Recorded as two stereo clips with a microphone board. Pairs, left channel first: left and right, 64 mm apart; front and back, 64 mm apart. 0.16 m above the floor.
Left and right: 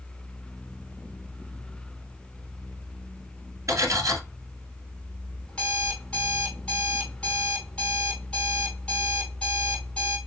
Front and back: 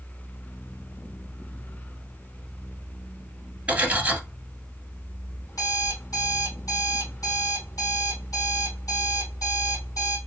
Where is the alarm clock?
15° left, 3 m.